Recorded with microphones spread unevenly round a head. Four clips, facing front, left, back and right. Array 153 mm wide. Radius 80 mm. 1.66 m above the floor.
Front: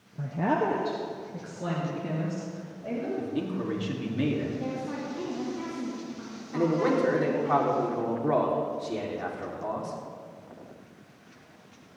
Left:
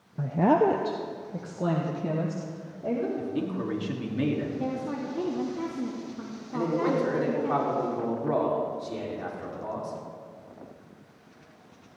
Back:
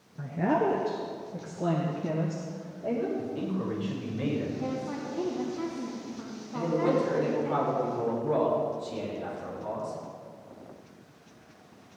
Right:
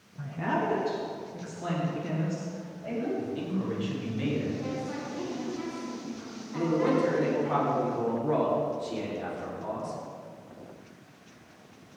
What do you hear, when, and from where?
0.2 s a woman speaking: 80° left, 0.7 m; by 3.1 s 125° left, 3.5 m
3.2 s a man speaking: 40° left, 3.5 m
4.6 s a woman speaking: 100° left, 3 m
6.5 s a man speaking: 5° left, 4.5 m